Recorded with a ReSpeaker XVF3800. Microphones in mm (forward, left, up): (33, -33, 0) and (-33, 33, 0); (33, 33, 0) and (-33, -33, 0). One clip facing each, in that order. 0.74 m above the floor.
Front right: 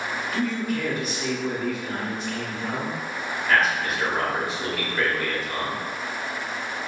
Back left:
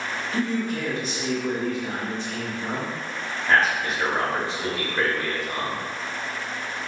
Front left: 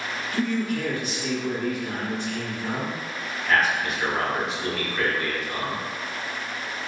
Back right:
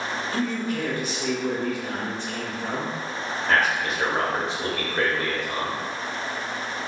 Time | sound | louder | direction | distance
0.3 | a man speaking | back left 1 dB, front left 3 dB | 175° right | 0.9 m